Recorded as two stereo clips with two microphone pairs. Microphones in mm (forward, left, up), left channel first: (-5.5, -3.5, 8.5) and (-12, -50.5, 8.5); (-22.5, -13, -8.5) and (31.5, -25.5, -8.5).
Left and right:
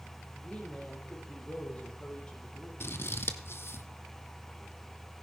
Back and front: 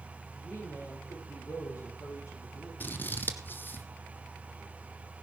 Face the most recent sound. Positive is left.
turn(degrees=115)